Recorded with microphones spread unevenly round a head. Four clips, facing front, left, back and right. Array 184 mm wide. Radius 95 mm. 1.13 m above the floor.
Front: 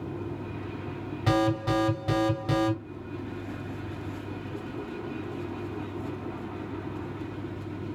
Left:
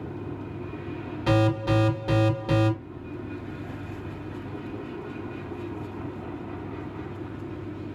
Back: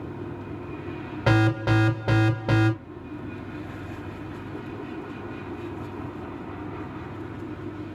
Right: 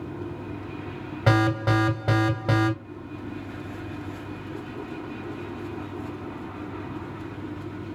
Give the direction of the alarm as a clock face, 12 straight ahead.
5 o'clock.